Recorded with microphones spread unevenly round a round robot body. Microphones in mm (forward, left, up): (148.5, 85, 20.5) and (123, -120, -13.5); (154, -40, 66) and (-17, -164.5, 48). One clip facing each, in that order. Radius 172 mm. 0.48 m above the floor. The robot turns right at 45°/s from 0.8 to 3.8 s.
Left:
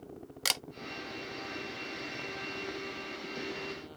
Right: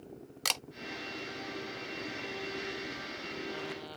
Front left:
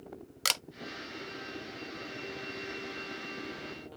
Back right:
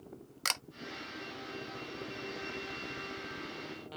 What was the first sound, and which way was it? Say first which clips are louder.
A camera shutter: even, front left 4 dB; 10° right.